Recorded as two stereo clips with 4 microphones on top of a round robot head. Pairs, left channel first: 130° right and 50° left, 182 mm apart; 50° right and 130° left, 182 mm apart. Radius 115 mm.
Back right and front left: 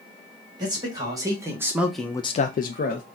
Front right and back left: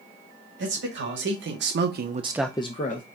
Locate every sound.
0.6 s a man speaking: 115° left, 2 m; by 3.0 s 90° right, 1.0 m